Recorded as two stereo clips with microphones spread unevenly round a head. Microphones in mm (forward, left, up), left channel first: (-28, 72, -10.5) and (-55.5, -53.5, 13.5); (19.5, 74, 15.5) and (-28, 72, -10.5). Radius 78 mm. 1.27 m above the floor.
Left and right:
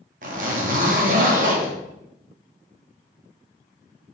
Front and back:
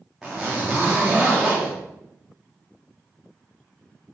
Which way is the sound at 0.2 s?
80° right.